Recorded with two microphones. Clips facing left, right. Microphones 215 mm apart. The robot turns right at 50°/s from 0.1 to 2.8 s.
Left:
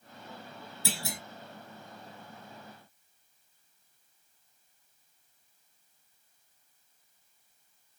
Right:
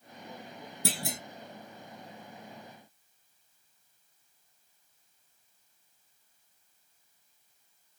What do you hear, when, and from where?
0.8 s a clunk: 60° right (ahead or behind), 1.7 m; by 1.2 s 45° right (ahead or behind), 1.7 m